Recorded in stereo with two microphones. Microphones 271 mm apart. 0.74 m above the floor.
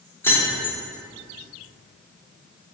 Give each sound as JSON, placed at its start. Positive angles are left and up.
{"t": 0.2, "sound": "keys jangling", "side_deg": 10, "distance_m": 1.1}